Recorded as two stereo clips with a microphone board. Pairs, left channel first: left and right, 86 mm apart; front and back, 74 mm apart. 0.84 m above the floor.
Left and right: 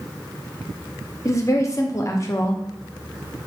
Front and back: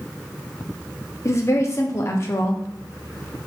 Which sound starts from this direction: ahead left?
A woman speaking, at 1.2 s.